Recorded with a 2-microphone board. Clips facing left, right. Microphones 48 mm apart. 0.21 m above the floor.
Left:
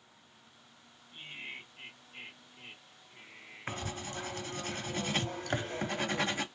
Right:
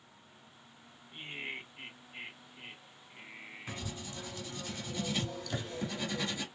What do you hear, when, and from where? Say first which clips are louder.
1.1 s laughter: right 3 dB; 35° right (ahead or behind), 2 m
3.7 s writing: left 5 dB; 45° left (ahead or behind), 0.8 m